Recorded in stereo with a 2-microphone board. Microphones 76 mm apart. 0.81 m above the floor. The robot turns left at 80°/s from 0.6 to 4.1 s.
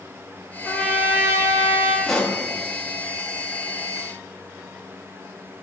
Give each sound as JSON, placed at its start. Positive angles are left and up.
{"t": 0.7, "sound": "a trumpet", "azimuth_deg": 5, "distance_m": 1.7}
{"t": 2.1, "sound": "a pop", "side_deg": 0, "distance_m": 1.3}